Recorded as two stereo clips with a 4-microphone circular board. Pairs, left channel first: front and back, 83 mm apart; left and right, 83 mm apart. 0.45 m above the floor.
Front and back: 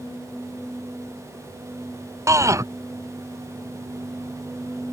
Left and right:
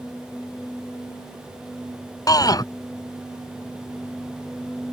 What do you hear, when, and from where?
2.3 s a shout: 130° left